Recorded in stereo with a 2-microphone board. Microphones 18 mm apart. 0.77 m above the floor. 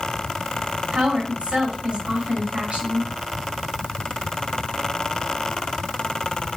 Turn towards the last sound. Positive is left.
turn(degrees=-75)  # may be behind; listen again after turning